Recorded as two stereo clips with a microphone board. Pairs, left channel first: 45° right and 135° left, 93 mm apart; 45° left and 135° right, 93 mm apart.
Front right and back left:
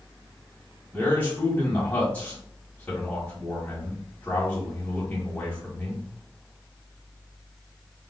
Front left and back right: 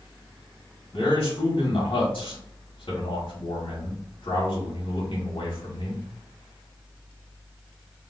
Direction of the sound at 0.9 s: 30° left.